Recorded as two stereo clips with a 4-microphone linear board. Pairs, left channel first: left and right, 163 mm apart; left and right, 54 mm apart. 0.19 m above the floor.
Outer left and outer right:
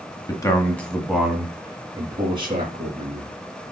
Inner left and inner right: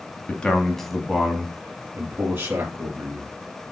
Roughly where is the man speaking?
Left.